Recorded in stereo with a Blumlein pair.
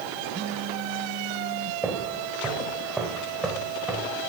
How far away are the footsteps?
About 4 m.